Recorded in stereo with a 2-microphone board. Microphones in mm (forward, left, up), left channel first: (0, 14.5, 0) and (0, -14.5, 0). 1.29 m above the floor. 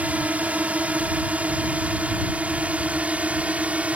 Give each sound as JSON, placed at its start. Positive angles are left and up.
{"t": 0.0, "sound": "a drone", "side_deg": -60}